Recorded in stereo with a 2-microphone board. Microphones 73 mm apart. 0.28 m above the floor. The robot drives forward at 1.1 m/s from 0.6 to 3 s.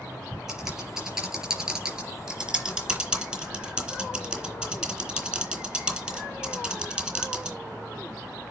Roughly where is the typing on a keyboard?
Centre.